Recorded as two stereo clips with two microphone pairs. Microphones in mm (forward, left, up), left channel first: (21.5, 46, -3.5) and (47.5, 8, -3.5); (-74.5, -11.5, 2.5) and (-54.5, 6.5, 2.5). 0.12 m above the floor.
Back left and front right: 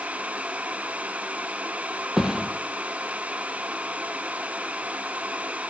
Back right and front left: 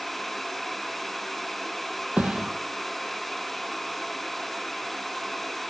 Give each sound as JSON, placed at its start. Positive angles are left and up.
{"t": 2.2, "sound": "a thud", "azimuth_deg": 20, "distance_m": 1.3}